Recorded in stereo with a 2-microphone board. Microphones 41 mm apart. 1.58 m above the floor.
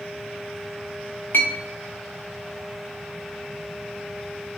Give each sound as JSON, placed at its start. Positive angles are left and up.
{"t": 1.3, "sound": "a clink", "side_deg": 45, "distance_m": 0.8}